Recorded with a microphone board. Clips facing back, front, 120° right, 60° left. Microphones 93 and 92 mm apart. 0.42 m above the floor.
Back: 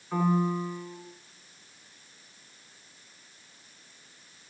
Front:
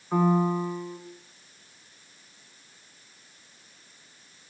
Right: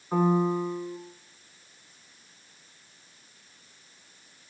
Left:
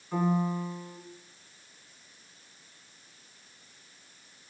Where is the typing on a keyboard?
I don't hear typing on a keyboard.